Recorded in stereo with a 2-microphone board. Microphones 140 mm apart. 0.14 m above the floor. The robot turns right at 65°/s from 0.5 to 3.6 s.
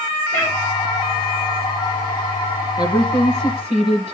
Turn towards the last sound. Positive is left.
turn(degrees=-80)